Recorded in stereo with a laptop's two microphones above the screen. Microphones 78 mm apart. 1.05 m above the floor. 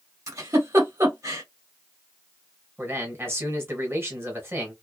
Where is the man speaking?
30° right (ahead or behind), 1.1 m.